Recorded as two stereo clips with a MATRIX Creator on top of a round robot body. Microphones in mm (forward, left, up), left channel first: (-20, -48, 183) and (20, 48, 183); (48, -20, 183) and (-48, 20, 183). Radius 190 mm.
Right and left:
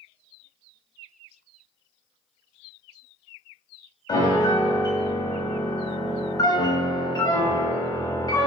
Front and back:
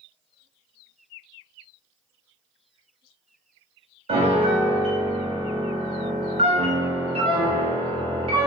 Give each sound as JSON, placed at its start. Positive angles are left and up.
{"t": 4.1, "sound": "a piano", "azimuth_deg": -170, "distance_m": 0.7}